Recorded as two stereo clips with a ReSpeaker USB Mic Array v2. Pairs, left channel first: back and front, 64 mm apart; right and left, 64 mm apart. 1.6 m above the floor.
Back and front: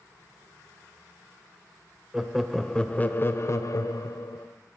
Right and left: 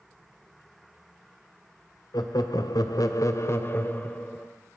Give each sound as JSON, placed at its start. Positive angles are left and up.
{"t": 2.1, "sound": "laughter", "azimuth_deg": -80, "distance_m": 0.8}